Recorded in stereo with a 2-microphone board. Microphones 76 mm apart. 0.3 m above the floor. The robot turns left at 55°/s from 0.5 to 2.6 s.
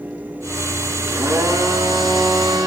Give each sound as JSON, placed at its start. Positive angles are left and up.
{"t": 1.1, "sound": "a blender", "azimuth_deg": -25, "distance_m": 4.0}